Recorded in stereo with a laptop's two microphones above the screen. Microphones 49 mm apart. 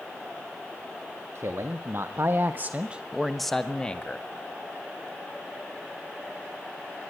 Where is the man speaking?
65° right (ahead or behind), 2 m; by 4.3 s 25° left (ahead or behind), 1.8 m.